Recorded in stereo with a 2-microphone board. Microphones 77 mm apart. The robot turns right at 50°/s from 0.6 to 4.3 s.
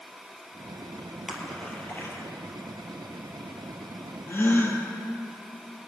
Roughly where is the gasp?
Left.